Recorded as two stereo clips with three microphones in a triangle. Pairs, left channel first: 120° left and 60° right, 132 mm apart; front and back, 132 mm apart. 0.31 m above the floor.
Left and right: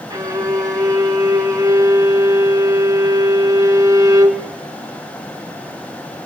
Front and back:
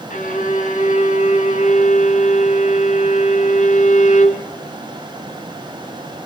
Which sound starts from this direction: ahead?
A violin, at 0.1 s.